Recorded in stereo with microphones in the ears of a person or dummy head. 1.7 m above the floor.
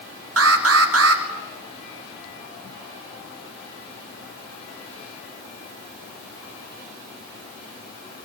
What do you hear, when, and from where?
0.4 s an alarm: 80° right, 3.5 m